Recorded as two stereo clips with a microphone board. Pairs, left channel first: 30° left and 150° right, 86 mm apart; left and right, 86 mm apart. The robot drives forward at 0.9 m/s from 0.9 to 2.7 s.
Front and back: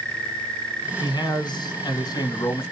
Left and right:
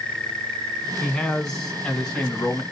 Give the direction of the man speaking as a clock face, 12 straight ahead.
12 o'clock.